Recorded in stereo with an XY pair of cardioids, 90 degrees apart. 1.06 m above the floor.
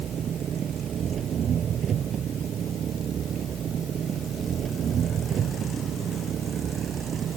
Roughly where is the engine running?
Ahead right.